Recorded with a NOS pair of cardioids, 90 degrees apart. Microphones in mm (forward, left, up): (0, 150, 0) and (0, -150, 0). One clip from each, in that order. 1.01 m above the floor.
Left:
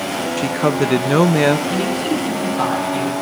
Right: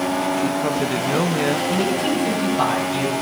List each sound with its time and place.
0.4 s a man speaking: 35° left, 0.6 m
1.7 s a man speaking: 5° right, 6.5 m